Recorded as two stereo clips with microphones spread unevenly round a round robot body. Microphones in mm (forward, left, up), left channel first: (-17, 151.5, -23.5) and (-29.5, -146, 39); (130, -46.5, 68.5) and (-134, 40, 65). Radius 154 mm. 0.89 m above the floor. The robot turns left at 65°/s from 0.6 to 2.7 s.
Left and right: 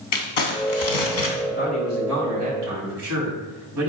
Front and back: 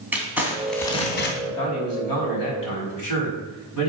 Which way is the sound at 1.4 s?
35° left.